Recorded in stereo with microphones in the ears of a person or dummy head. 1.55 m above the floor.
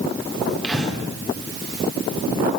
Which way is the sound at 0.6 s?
10° left (ahead or behind).